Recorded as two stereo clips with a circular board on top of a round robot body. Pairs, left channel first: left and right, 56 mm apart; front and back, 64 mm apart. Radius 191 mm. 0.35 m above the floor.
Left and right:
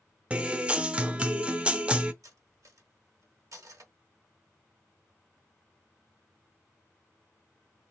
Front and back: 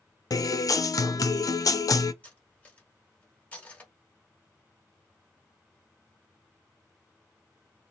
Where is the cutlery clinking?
70° right, 1.3 m.